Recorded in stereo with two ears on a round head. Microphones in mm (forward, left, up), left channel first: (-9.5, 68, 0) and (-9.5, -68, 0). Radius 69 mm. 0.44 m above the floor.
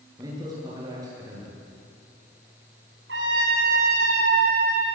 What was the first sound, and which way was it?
A man speaking, 25° right (ahead or behind).